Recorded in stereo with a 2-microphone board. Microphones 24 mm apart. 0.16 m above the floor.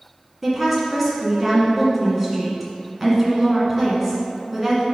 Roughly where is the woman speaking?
Centre.